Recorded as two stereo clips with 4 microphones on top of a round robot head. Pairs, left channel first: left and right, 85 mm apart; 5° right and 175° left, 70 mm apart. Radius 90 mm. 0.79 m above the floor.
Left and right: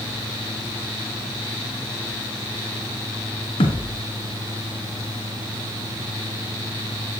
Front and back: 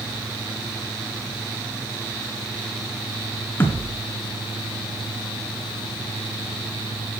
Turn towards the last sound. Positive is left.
turn(degrees=55)